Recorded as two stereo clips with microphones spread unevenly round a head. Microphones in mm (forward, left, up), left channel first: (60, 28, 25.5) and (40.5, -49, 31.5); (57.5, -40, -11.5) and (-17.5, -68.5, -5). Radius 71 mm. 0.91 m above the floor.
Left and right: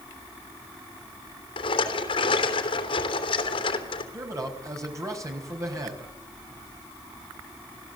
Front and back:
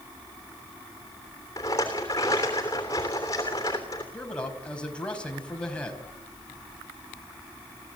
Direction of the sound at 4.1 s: 55° right.